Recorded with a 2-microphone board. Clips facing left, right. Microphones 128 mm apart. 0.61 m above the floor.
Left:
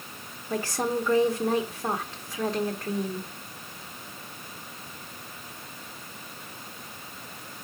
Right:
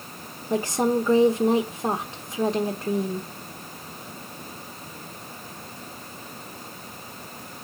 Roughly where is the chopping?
I don't hear chopping.